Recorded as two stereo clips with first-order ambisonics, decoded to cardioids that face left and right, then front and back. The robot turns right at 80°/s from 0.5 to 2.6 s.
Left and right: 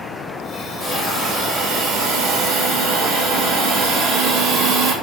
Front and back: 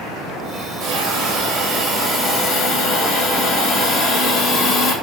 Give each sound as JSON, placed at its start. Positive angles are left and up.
{"t": 0.8, "sound": "a hiss", "azimuth_deg": 155, "distance_m": 1.8}